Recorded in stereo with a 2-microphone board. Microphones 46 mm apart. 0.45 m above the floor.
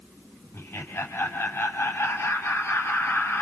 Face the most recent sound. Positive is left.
turn(degrees=70)  # may be behind; listen again after turning